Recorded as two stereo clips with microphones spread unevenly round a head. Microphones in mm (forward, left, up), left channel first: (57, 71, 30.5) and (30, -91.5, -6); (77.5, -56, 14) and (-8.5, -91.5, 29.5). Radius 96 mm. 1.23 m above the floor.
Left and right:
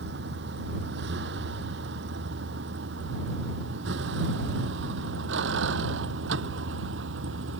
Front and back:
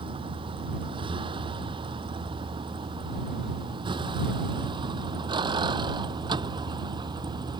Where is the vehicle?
135° right; by 7.6 s 120° right.